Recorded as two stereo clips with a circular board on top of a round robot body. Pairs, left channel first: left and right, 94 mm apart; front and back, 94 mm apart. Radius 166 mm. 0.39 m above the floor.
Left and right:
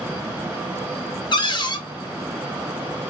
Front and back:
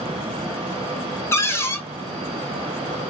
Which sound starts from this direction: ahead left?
A cupboard door, at 1.3 s.